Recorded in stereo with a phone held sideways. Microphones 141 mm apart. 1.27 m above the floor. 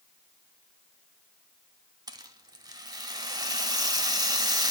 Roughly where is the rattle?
Right.